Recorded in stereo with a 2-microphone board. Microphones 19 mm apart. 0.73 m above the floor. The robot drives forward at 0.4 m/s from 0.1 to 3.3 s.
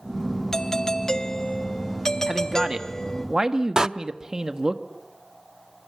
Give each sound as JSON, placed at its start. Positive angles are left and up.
{"t": 0.5, "sound": "a doorbell", "side_deg": 25, "distance_m": 1.2}
{"t": 2.3, "sound": "a man speaking", "side_deg": -30, "distance_m": 1.6}
{"t": 3.8, "sound": "a door slam", "side_deg": -35, "distance_m": 0.6}